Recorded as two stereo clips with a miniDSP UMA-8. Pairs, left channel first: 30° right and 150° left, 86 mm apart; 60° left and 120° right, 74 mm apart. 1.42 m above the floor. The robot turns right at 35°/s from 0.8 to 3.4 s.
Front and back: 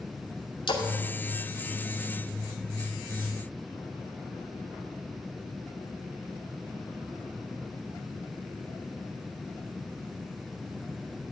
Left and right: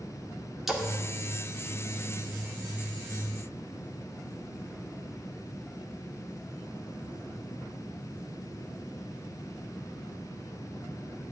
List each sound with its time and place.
0.7 s a splash: 35° right, 2.5 m